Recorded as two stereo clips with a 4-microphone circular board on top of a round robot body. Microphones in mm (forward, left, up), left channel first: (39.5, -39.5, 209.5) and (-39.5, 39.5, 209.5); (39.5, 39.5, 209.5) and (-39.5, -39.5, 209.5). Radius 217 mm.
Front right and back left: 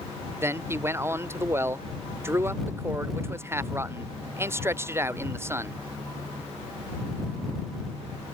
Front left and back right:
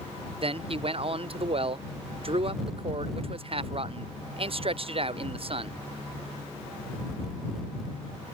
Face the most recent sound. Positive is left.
turn(degrees=-160)